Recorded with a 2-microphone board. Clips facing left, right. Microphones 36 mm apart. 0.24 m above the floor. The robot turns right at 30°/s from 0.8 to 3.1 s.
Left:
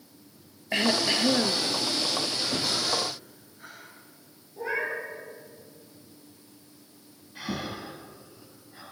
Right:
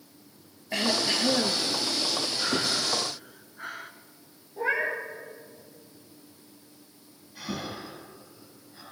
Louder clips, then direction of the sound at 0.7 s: Left 2 dB; 25° left (ahead or behind).